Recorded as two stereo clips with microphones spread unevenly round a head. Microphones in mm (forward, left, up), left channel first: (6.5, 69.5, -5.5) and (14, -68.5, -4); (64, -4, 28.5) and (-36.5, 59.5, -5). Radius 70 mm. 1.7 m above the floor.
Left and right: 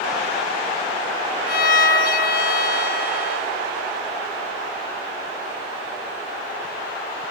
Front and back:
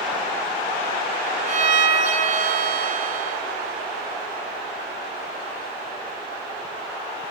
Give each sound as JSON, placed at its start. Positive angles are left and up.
{"t": 1.5, "sound": "a violin", "azimuth_deg": 125, "distance_m": 1.7}